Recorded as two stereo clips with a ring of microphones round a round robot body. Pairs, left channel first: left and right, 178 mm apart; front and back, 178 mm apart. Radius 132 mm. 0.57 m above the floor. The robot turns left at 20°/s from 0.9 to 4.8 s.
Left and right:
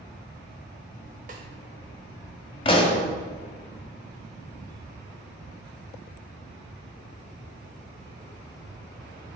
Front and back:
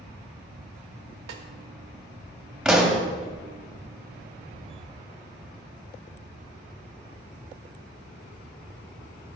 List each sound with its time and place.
1.3 s a snare drum: 150° right, 0.6 m
2.6 s a pop: 95° left, 1.3 m; by 3.0 s 90° left, 1.3 m